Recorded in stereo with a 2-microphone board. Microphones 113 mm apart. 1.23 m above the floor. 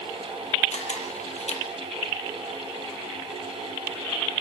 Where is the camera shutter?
80° left, 5.5 m.